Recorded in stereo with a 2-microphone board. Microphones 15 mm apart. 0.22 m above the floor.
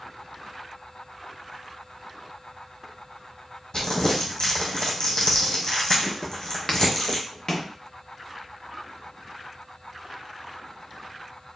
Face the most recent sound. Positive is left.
turn(degrees=40)  # may be behind; listen again after turning